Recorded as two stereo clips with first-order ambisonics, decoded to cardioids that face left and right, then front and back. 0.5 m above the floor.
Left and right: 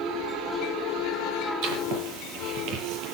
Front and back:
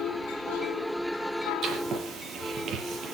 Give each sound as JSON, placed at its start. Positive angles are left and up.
{"t": 1.6, "sound": "writing", "azimuth_deg": -120, "distance_m": 8.5}